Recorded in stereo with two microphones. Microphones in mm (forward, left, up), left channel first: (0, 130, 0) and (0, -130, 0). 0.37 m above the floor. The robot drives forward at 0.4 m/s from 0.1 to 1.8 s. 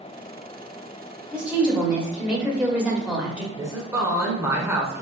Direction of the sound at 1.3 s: 5° right (ahead or behind).